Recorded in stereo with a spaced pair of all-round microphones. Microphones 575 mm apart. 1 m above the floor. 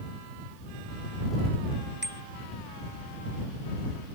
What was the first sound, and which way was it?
A bicycle bell, 15° right (ahead or behind).